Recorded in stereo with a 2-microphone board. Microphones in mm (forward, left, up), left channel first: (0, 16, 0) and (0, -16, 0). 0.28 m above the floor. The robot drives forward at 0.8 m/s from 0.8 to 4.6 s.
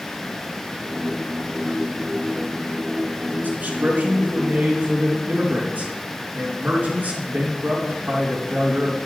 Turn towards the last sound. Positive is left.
turn(degrees=-60)  # may be behind; listen again after turning